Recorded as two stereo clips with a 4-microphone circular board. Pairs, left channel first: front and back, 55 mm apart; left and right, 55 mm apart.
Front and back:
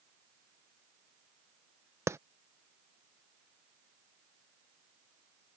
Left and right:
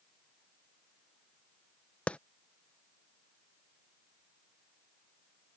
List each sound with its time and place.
2.1 s a clap: 155° left